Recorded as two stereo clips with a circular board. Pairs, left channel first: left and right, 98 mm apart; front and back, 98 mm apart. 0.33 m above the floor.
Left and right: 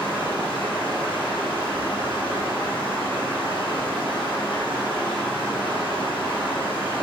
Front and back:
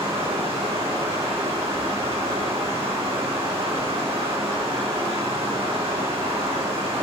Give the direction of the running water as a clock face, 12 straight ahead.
6 o'clock.